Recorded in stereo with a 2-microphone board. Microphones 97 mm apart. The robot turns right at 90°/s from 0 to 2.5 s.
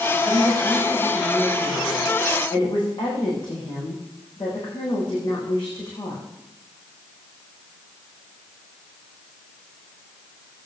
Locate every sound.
0.2 s a woman speaking: 80° right, 9 m; by 6.2 s 125° left, 9 m